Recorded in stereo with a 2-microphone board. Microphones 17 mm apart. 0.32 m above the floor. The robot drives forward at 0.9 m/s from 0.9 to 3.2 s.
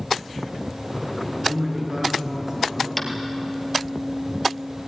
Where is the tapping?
10° left (ahead or behind), 3 m.